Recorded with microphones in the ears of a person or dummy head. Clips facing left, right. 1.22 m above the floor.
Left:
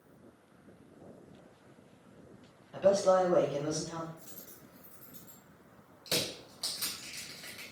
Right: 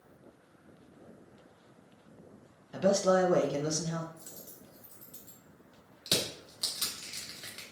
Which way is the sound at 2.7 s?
35° right (ahead or behind).